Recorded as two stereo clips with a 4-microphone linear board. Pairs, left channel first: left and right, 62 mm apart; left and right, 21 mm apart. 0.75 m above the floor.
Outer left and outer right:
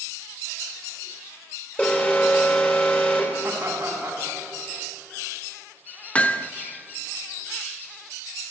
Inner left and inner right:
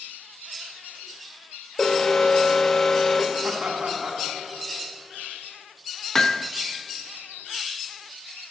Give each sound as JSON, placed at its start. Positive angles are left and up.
{"t": 1.8, "sound": "an alarm", "side_deg": 25, "distance_m": 3.0}
{"t": 3.4, "sound": "laughter", "side_deg": -30, "distance_m": 5.0}
{"t": 6.2, "sound": "hammering", "side_deg": 25, "distance_m": 0.6}